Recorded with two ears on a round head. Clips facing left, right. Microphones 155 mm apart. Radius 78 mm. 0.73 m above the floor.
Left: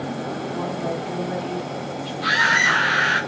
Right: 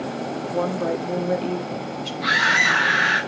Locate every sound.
0.5 s a woman speaking: 55° right (ahead or behind), 1.5 m
2.2 s a scream: 5° right (ahead or behind), 3.5 m